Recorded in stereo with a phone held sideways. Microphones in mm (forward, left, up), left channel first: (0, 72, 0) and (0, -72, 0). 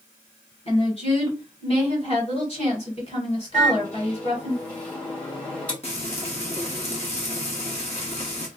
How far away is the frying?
About 1.5 m.